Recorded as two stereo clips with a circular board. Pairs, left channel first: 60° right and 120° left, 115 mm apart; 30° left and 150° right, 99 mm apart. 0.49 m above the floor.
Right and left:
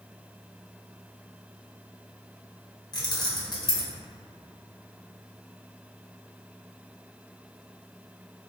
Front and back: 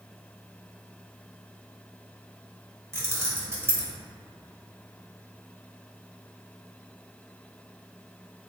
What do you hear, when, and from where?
2.9 s keys jangling: 95° right, 0.7 m